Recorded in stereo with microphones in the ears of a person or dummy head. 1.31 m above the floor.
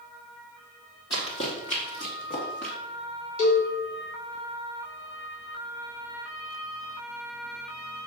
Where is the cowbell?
55° left (ahead or behind), 3 m.